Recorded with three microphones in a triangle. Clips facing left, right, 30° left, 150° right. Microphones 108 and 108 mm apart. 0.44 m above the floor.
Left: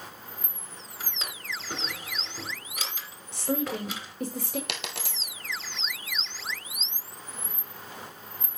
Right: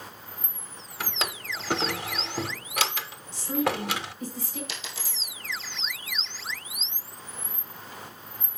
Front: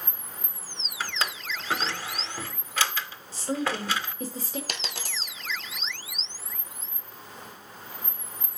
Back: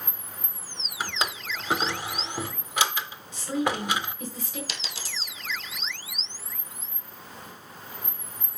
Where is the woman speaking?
80° left, 1.6 m.